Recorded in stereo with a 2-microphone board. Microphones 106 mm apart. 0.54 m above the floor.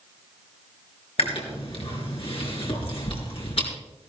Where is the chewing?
65° left (ahead or behind), 4.5 m.